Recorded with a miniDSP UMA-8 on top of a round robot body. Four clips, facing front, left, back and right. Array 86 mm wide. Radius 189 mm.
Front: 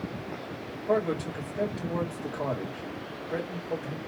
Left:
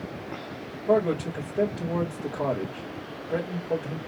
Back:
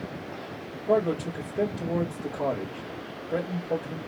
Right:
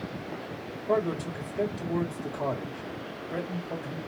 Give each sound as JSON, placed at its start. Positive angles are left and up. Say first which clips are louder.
{"t": 0.9, "sound": "a man speaking", "louder": "left 4 dB, back 3 dB", "azimuth_deg": 105, "distance_m": 2.5}